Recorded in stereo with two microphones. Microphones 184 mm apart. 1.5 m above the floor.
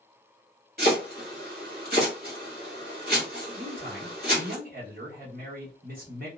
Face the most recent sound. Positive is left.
turn(degrees=-50)  # may be behind; listen again after turning